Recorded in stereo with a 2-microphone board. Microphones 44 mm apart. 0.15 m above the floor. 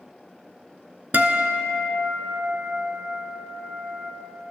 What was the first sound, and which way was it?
A guitar, 45° right (ahead or behind).